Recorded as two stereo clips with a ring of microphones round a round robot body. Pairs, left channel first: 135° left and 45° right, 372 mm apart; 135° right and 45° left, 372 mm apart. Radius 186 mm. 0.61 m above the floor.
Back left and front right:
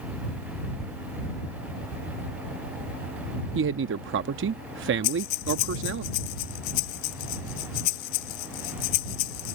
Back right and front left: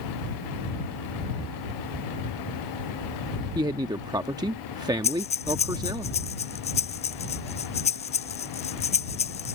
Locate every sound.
3.5 s a man speaking: 25° right
5.0 s breathing: 150° left